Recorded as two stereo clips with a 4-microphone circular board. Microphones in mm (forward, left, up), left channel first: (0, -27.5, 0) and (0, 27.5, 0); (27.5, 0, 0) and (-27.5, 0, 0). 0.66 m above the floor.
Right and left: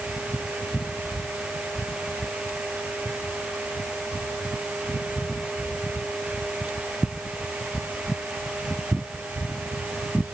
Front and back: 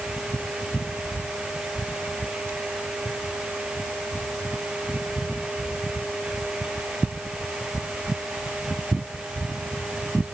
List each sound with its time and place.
Only background noise.